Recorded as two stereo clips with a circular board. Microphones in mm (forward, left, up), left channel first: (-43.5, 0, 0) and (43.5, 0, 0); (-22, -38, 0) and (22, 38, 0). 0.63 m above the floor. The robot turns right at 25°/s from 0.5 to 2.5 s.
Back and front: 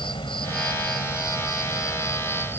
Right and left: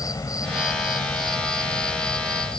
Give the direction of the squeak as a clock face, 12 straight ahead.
No squeak in this recording.